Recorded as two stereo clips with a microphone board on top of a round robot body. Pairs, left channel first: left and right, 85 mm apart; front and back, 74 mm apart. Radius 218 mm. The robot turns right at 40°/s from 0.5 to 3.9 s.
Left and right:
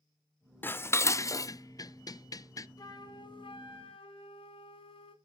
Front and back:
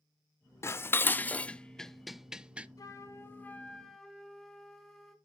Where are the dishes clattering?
35° left, 0.5 m; by 2.7 s 115° left, 0.5 m.